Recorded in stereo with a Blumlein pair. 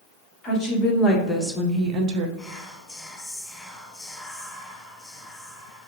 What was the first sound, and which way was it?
A woman speaking, 20° left.